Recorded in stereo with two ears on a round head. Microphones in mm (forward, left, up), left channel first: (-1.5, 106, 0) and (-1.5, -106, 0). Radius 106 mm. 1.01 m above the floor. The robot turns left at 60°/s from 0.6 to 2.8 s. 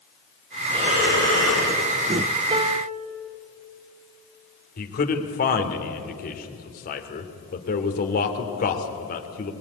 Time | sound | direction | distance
0.7 | breathing | 20° right | 6.5 m
2.5 | a piano | 20° right (ahead or behind) | 0.8 m
4.8 | a man speaking | 40° left (ahead or behind) | 2.5 m